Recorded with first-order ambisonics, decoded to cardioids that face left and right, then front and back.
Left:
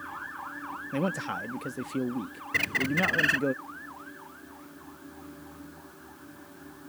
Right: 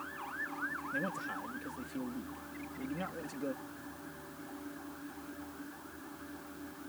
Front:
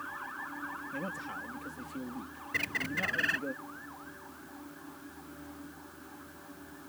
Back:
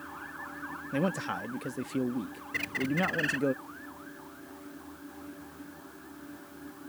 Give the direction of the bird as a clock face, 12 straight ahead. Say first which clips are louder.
Left 18 dB, back 1 dB; 9 o'clock.